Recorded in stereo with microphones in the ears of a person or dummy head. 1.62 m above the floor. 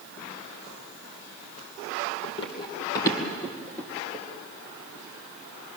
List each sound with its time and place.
2.2 s running footsteps: 35° left (ahead or behind), 2.5 m; by 4.2 s 5° left (ahead or behind), 2.5 m